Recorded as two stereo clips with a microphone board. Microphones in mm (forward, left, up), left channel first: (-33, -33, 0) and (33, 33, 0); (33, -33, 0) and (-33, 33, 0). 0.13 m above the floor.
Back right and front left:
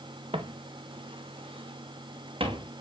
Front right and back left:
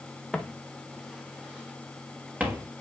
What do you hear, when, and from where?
0.3 s footsteps: 40° left, 1.5 m; by 2.7 s 65° left, 2.5 m